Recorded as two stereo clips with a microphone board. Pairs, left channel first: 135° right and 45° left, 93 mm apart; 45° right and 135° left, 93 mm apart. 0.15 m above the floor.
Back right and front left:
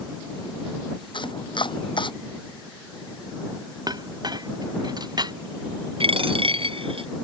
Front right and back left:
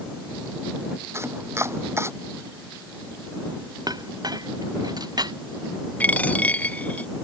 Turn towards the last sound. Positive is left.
turn(degrees=30)